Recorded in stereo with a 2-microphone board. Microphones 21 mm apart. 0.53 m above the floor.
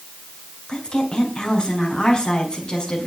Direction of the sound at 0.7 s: 35° left (ahead or behind).